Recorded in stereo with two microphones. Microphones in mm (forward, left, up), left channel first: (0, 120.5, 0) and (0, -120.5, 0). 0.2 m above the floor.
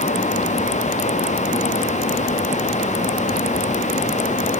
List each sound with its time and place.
Only background noise.